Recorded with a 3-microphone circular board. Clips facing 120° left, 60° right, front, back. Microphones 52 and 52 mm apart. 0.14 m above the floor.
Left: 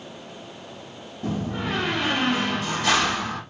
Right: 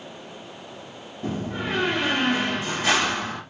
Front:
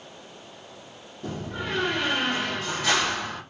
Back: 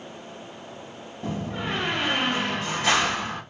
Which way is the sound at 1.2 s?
130° right.